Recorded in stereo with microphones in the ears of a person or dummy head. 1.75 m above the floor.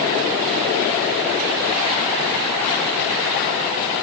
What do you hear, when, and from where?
Only background noise.